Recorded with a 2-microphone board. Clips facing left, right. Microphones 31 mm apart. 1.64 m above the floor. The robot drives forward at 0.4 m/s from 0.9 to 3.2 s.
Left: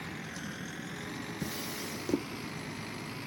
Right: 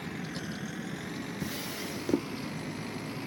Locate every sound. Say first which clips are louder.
0.0 s a vehicle: right 3 dB; 45° right (ahead or behind)
1.4 s a drawer: right 2 dB; 10° right (ahead or behind)